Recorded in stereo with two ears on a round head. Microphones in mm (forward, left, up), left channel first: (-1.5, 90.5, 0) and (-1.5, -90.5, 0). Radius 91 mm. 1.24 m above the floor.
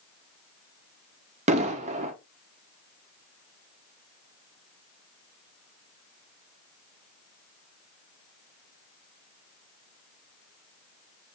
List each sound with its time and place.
1.5 s an explosion: 35° right (ahead or behind), 0.5 m